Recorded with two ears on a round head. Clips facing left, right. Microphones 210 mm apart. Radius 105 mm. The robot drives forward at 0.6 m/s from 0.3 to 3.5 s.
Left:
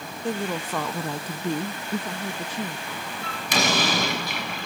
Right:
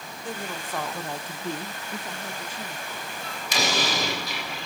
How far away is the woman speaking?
About 1.1 m.